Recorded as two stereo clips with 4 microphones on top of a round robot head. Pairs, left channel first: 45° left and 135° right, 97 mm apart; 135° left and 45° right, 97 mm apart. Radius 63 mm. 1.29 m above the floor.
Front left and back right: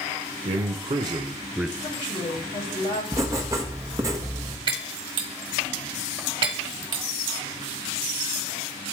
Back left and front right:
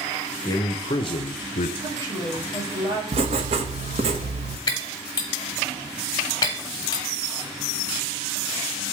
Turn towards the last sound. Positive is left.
turn(degrees=-175)